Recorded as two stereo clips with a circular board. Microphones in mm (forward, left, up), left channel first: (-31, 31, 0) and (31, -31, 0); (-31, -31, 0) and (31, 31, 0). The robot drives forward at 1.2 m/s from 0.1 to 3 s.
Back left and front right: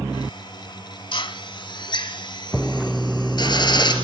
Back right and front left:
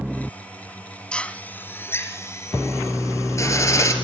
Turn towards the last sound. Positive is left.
turn(degrees=170)